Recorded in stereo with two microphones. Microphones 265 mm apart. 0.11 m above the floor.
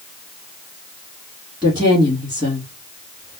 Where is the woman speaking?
15° right (ahead or behind), 2.5 m.